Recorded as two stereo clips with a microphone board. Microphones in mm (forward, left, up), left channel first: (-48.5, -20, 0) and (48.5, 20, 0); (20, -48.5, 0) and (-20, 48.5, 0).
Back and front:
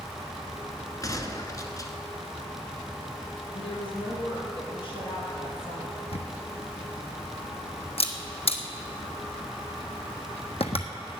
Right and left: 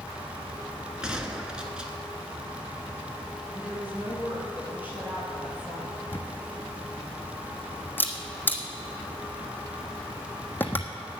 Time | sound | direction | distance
1.0 | a gunshot | 170° right | 1.2 m
3.5 | a woman speaking | 175° right | 4 m
6.1 | a camera shutter | 140° right | 1.2 m